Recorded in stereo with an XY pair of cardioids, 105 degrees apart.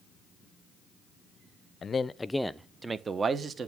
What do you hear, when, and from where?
1.8 s a man speaking: 40° left, 0.6 m; by 3.7 s 45° right, 1.1 m